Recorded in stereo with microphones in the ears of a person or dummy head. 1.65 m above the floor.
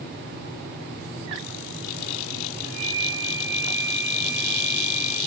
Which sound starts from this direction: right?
A flute, at 2.6 s.